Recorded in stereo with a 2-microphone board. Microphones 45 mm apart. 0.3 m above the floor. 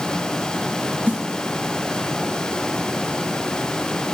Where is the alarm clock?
I don't hear an alarm clock.